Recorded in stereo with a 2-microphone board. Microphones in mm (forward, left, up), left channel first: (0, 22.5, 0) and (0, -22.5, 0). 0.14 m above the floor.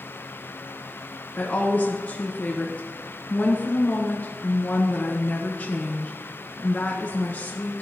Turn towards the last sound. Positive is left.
turn(degrees=40)  # may be behind; listen again after turning